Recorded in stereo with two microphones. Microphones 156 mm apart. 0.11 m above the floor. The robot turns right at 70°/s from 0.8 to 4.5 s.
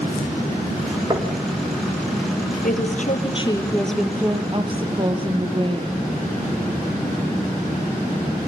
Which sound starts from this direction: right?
Knocking, at 1.1 s.